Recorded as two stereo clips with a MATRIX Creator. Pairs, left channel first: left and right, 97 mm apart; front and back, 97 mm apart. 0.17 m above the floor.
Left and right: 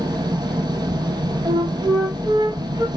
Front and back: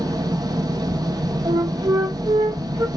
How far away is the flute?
About 1.9 m.